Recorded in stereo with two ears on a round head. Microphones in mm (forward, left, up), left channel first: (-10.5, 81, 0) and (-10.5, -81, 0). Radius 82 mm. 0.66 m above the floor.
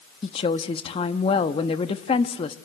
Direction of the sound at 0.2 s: 30° left (ahead or behind).